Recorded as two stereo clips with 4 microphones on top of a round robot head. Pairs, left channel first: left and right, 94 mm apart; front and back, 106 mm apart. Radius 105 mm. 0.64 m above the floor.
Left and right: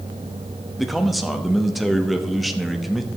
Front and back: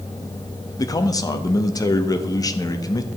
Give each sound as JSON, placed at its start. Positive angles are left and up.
{"t": 0.8, "sound": "a man speaking", "azimuth_deg": 0, "distance_m": 1.0}